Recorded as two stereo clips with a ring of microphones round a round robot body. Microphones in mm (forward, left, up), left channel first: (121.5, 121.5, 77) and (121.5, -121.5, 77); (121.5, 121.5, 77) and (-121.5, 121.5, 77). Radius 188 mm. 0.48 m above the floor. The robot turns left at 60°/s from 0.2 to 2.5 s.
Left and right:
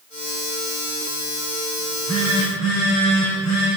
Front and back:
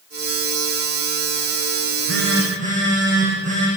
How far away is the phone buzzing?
About 9 m.